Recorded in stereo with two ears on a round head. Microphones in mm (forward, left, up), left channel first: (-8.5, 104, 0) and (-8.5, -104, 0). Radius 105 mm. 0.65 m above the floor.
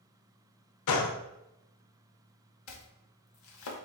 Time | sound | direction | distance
0.9 | a gunshot | 85° left | 0.5 m
2.7 | chopping | 60° left (ahead or behind) | 0.8 m